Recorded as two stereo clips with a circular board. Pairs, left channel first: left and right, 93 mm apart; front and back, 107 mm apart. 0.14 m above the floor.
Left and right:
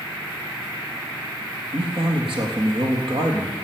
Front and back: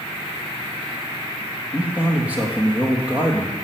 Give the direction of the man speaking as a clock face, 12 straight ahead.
3 o'clock.